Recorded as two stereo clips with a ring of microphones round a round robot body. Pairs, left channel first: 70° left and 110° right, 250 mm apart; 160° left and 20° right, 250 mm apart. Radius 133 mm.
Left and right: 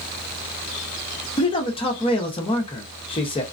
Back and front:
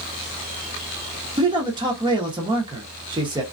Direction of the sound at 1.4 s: 25° left.